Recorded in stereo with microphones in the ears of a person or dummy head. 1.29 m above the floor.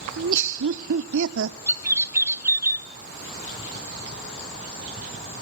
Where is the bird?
15° right (ahead or behind), 0.7 m.